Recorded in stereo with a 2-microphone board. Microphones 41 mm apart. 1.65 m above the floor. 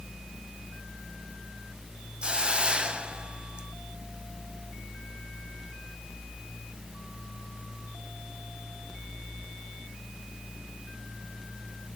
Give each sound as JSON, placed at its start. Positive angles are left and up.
{"t": 2.2, "sound": "a hiss", "side_deg": -25, "distance_m": 0.9}